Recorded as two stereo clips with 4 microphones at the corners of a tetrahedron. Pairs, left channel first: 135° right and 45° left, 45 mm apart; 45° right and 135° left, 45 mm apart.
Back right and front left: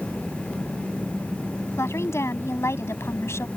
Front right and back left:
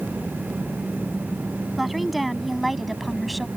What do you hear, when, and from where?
1.8 s a woman speaking: 140° right; by 3.5 s 135° right